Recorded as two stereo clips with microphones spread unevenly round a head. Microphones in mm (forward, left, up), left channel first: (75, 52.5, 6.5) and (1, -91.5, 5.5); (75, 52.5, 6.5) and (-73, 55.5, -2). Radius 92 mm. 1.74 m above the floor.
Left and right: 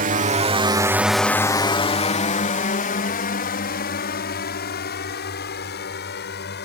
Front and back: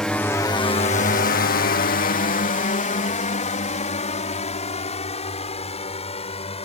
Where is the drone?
90° right; by 6.6 s 45° left.